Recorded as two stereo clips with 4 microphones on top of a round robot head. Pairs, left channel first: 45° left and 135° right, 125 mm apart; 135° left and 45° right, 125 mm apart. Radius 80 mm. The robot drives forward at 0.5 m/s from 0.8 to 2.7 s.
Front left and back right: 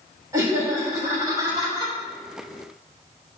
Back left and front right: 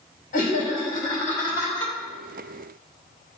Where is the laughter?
155° left, 3 m; by 1.9 s 160° left, 3.5 m.